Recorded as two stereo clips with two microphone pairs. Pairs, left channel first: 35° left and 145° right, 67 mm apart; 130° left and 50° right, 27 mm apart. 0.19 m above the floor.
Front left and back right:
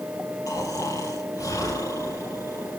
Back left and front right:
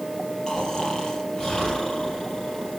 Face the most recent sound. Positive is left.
turn(degrees=65)